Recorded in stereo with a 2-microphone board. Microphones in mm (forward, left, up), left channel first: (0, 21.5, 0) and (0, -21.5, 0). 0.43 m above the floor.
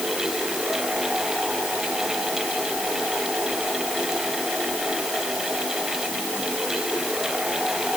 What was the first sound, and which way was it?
Only background noise.